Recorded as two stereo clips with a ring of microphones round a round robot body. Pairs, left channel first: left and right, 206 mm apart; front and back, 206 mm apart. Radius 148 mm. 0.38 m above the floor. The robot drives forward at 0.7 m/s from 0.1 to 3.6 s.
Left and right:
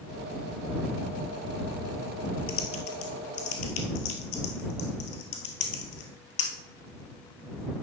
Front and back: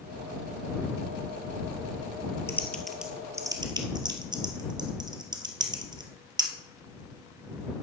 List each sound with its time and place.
2.5 s typing on a keyboard: 80° left, 1.4 m; by 6.5 s 110° left, 1.5 m